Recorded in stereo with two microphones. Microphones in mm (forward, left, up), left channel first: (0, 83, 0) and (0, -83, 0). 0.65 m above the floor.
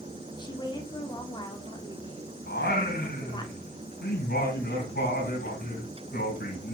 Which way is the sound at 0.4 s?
25° left (ahead or behind).